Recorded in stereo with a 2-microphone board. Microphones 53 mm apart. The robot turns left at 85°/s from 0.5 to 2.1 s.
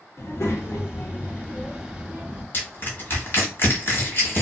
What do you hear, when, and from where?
0.2 s a child speaking: 110° left, 0.9 m; by 2.4 s 25° right, 0.9 m
2.5 s crushing: 35° left (ahead or behind), 1.3 m